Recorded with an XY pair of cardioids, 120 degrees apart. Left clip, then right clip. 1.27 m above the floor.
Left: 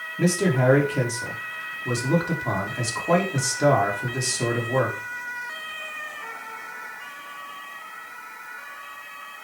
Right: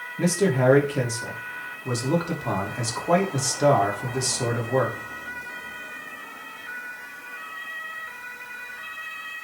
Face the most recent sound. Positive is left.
turn(degrees=-5)